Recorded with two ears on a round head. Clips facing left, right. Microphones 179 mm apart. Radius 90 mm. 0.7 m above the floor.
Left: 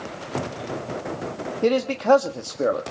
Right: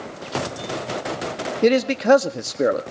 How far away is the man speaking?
About 1.3 m.